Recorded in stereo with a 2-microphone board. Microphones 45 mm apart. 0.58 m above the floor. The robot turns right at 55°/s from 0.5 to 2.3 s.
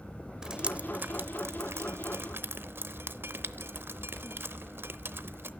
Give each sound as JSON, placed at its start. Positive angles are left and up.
{"t": 0.4, "sound": "dripping", "side_deg": -15, "distance_m": 0.7}